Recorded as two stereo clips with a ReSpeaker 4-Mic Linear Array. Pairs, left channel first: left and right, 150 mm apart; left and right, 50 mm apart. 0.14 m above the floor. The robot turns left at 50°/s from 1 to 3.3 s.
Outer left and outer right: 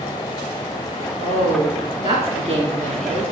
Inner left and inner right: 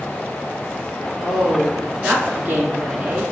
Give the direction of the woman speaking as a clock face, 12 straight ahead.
1 o'clock.